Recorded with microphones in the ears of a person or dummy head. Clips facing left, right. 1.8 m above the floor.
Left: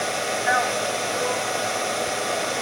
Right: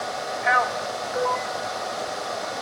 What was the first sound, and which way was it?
A man speaking, 55° right (ahead or behind).